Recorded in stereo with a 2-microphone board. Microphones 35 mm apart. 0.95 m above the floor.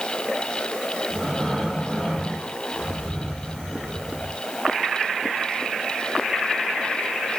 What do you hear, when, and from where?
1.1 s breathing: 15° left (ahead or behind), 7 m